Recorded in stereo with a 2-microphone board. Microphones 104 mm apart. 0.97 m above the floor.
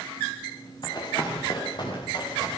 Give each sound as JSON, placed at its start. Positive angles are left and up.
{"t": 0.8, "sound": "running footsteps", "side_deg": 45, "distance_m": 8.0}